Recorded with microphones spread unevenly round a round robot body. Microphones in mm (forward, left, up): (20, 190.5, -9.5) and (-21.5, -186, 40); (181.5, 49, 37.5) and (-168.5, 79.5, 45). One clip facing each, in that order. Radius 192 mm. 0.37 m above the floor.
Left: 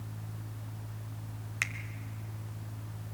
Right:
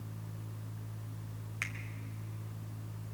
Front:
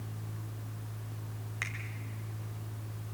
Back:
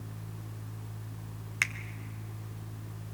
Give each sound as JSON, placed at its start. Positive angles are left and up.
{"t": 1.6, "sound": "a finger snap", "azimuth_deg": 150, "distance_m": 1.3}